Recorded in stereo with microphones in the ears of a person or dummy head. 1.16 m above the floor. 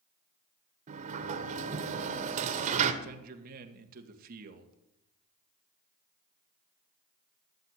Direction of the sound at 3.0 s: 50° right (ahead or behind).